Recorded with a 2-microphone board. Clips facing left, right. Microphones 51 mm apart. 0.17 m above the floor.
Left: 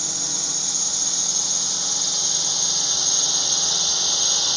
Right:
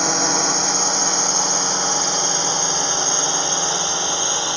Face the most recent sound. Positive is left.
turn(degrees=-30)  # may be behind; listen again after turning